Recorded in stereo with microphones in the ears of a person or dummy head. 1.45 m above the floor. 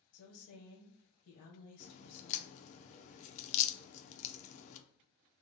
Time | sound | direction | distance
0.1 | a woman speaking | 50° left (ahead or behind) | 1.1 m
1.8 | a crack | 40° left (ahead or behind) | 0.5 m